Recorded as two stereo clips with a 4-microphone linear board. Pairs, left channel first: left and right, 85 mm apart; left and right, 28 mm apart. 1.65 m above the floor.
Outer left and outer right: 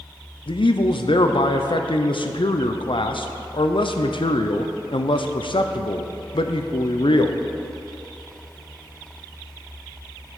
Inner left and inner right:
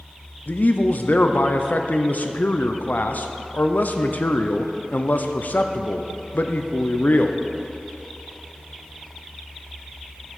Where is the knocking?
No knocking in this recording.